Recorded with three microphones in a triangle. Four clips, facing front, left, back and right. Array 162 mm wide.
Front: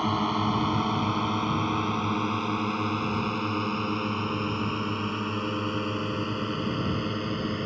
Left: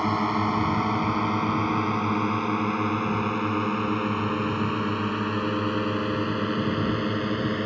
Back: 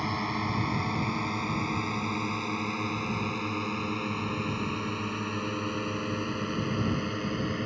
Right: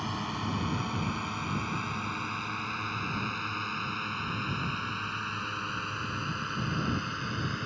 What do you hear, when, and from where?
0.0 s a drone: 70° left; by 7.7 s 85° left